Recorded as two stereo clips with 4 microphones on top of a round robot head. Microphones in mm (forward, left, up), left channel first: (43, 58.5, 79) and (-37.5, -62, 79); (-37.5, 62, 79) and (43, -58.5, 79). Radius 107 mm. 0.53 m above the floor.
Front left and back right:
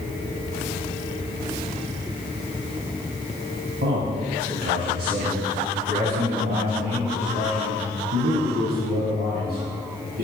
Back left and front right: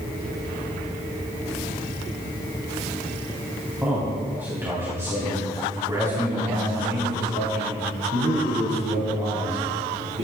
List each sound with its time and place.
3.8 s a man speaking: 135° right, 4 m; by 10.2 s 105° right, 6 m